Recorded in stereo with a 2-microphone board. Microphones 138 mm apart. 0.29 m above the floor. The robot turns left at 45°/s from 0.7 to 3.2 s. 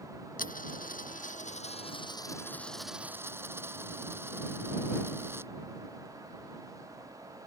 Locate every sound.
0.4 s a dropped coin: 95° left; by 5.5 s 15° right